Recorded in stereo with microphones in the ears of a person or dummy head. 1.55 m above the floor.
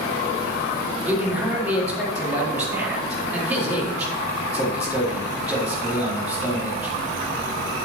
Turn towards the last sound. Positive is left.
turn(degrees=-10)  # may be behind; listen again after turning